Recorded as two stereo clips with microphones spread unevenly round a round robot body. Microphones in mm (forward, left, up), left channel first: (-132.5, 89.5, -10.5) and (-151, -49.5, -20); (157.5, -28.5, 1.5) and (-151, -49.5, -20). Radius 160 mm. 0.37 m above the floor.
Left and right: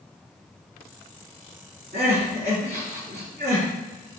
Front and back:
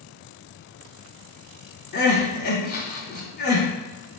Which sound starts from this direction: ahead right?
Crying, at 1.9 s.